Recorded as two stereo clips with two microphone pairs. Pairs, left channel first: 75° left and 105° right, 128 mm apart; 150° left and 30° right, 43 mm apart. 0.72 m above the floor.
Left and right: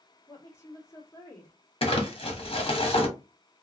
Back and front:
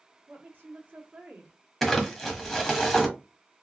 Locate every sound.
0.3 s a woman speaking: 5° left, 1.6 m
1.8 s crumpling: 60° left, 1.2 m